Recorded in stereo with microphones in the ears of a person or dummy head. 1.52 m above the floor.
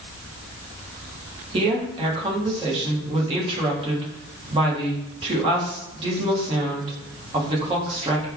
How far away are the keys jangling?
No keys jangling in this recording.